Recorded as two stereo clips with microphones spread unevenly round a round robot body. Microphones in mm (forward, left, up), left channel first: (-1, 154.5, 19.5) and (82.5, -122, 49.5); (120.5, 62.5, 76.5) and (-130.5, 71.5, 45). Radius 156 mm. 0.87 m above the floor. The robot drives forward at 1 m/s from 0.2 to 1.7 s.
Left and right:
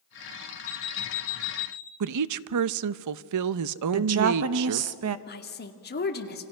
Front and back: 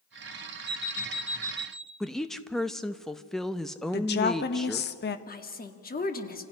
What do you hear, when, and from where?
0.7 s an alarm clock: 65° left, 1.4 m; by 1.9 s 110° left, 1.4 m
2.0 s a woman speaking: 95° right, 0.6 m
3.9 s a woman speaking: 50° right, 1.1 m
5.3 s a woman speaking: 55° left, 2 m